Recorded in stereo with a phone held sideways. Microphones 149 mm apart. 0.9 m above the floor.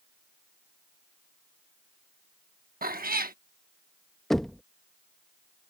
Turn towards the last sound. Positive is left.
turn(degrees=0)  # may be behind; listen again after turning